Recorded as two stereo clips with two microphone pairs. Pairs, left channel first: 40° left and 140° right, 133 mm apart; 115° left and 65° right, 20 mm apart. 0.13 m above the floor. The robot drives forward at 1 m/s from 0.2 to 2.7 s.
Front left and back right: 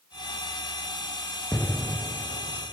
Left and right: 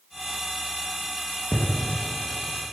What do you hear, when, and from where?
1.5 s an explosion: 110° left, 0.9 m; by 2.7 s 155° left, 1.6 m